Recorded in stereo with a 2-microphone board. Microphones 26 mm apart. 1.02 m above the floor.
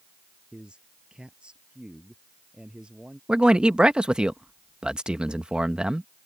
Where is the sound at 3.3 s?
35° right (ahead or behind).